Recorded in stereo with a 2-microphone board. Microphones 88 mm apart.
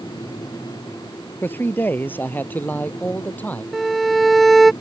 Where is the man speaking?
20° left (ahead or behind).